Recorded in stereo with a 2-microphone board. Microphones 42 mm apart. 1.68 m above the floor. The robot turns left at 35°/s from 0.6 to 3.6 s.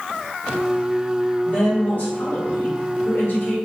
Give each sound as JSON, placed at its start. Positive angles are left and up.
{"t": 1.4, "sound": "a woman speaking", "azimuth_deg": 145, "distance_m": 2.5}